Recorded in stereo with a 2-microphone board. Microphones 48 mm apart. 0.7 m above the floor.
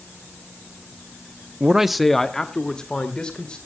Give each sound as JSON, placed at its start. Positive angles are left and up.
{"t": 1.6, "sound": "a man speaking", "side_deg": -20, "distance_m": 0.5}